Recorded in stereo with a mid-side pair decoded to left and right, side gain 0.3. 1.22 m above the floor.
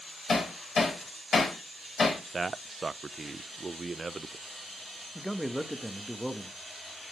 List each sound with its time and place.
0.3 s hammering: 65° left, 3.5 m
2.3 s a man speaking: 40° right, 0.5 m
5.2 s a man speaking: straight ahead, 1.3 m